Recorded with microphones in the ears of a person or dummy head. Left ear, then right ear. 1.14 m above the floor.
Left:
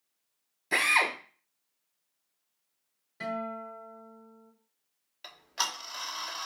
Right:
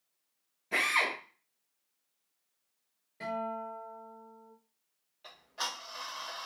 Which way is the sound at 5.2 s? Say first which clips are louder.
Left 5 dB; 50° left (ahead or behind).